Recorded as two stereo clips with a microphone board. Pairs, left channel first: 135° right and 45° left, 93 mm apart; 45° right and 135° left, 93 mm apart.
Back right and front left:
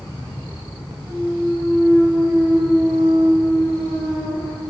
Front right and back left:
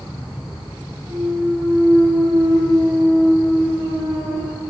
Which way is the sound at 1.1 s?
105° left.